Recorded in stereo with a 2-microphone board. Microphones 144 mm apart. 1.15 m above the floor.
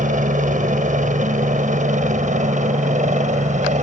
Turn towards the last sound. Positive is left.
turn(degrees=-55)  # may be behind; listen again after turning